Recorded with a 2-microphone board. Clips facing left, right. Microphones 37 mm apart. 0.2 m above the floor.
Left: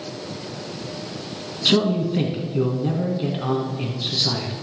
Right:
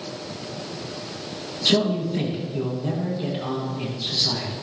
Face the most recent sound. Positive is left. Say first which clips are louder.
# left 2 dB
turn(degrees=20)  # may be behind; listen again after turning